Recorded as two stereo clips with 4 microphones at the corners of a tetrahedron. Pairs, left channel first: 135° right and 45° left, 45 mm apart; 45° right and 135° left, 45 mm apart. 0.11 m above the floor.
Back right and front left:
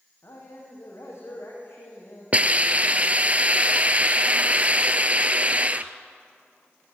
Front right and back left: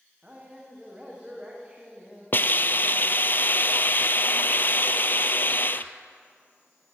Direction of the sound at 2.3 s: 10° right.